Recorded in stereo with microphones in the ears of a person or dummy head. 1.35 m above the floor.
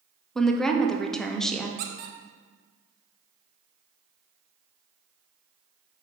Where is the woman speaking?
5° left (ahead or behind), 0.6 m.